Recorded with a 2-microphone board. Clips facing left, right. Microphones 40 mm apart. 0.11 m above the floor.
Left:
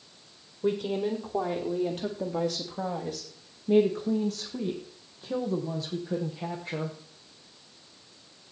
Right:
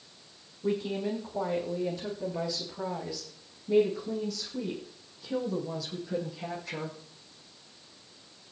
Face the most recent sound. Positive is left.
turn(degrees=30)  # may be behind; listen again after turning